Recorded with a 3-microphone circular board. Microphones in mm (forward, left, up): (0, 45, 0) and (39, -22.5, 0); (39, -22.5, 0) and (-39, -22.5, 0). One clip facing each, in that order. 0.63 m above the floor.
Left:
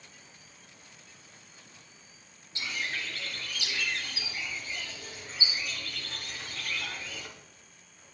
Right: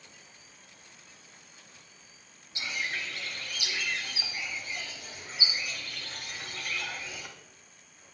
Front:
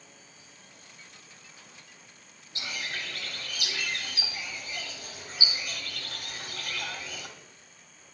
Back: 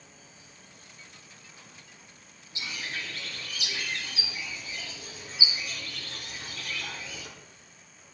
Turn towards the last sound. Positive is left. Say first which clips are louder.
# right 1 dB, even
turn(degrees=20)